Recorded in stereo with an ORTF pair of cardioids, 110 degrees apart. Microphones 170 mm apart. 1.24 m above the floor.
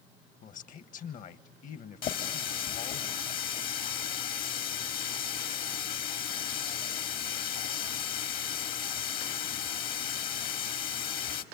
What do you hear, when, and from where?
0.4 s a man speaking: 50° left, 1.3 m
2.0 s a running tap: 60° left, 1.8 m